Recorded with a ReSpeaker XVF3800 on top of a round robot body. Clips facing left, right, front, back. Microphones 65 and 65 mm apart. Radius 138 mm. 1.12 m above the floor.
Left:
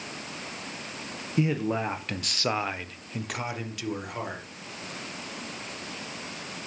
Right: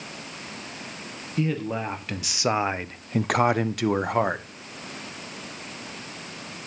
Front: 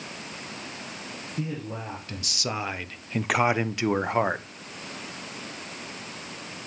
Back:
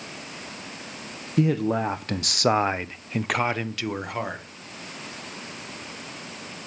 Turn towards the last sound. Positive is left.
turn(degrees=-55)